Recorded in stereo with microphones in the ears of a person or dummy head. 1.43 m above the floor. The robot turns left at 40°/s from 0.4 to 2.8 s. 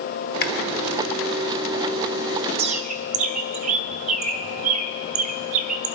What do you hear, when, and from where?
0.4 s chewing: 55° left (ahead or behind), 0.9 m
2.6 s a bird: 30° right (ahead or behind), 0.8 m; by 5.9 s 40° right (ahead or behind), 0.8 m